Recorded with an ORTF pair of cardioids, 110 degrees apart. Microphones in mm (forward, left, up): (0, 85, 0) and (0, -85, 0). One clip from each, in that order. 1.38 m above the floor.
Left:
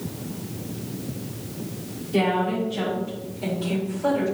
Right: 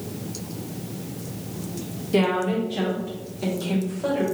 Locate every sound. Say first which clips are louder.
2.1 s a woman speaking: right 1 dB; 40° right, 1.5 m; by 4.2 s 35° right, 2.5 m